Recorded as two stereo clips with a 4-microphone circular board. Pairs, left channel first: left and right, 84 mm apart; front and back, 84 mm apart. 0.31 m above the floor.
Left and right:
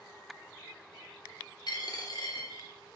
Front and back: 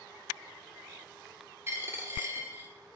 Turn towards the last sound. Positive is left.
turn(degrees=120)